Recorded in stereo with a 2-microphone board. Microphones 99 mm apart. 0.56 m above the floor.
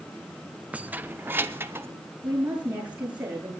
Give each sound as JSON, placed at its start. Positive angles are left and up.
{"t": 0.7, "sound": "keys jangling", "side_deg": -15, "distance_m": 0.5}
{"t": 2.2, "sound": "a woman speaking", "side_deg": -15, "distance_m": 8.0}